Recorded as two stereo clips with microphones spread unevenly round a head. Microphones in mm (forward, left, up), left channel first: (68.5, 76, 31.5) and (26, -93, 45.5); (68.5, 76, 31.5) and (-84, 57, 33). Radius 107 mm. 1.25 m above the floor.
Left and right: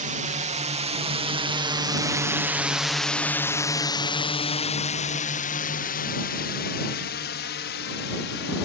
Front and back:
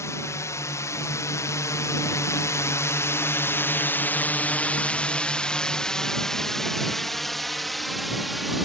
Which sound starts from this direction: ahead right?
A drone, at 0.0 s.